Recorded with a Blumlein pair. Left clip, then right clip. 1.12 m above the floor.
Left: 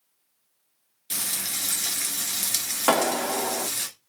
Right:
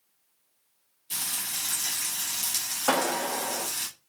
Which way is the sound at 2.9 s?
65° left.